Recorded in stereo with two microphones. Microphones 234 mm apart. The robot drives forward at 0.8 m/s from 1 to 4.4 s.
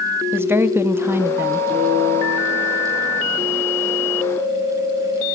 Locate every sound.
0.3 s a woman speaking: 10° right (ahead or behind), 0.5 m
1.7 s a guitar: 25° right (ahead or behind), 6.5 m; by 3.5 s 20° right (ahead or behind), 8 m